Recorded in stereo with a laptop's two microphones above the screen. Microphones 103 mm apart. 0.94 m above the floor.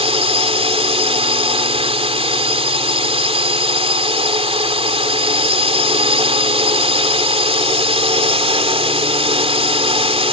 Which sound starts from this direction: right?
A drone, at 0.0 s.